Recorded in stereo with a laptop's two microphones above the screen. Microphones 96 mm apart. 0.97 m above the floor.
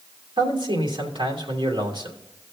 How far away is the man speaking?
About 2.5 m.